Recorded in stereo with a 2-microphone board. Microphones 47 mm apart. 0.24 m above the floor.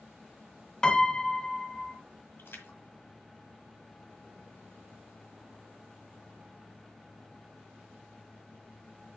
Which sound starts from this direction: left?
A splash, at 2.4 s.